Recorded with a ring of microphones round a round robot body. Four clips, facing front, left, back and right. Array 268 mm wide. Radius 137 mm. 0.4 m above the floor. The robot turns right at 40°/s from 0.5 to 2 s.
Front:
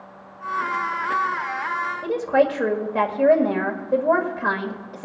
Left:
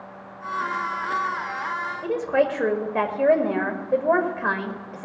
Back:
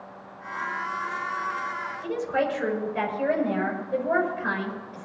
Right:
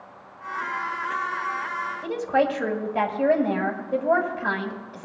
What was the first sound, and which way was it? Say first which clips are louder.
A woman speaking: left 1 dB, front 7 dB; 40° left.